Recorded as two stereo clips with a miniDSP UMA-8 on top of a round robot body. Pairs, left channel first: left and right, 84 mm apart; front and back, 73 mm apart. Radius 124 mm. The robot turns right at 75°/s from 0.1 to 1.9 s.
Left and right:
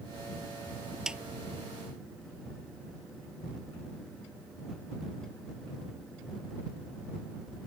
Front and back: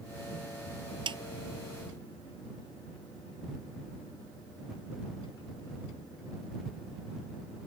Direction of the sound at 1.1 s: 175° right.